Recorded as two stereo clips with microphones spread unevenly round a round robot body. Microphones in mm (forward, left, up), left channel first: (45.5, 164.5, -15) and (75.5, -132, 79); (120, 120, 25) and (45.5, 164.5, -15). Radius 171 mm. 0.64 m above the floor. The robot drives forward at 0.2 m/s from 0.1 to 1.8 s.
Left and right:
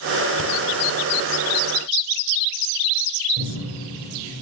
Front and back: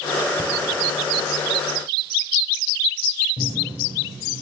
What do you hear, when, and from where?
0.4 s breathing: 95° right, 0.9 m
3.4 s a cupboard door: 155° right, 2 m